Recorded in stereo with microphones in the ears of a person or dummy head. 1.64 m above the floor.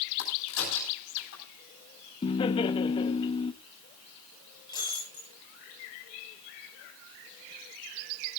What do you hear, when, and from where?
0.2 s a crack: 80° left, 9.5 m
2.2 s laughter: 30° left (ahead or behind), 1.1 m
4.7 s breaking glass: 20° left (ahead or behind), 9 m